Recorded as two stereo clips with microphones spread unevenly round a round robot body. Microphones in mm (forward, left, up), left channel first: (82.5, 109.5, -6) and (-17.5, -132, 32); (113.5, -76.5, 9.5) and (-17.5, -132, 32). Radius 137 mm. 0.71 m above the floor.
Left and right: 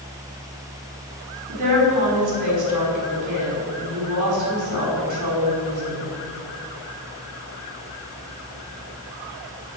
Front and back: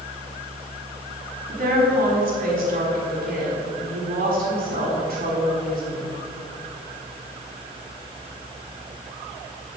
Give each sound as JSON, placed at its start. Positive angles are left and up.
{"t": 1.5, "sound": "a woman speaking", "azimuth_deg": -145, "distance_m": 4.5}